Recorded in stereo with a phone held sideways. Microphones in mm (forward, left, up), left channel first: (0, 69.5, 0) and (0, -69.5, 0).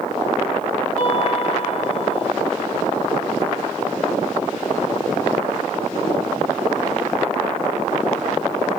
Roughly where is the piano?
Left.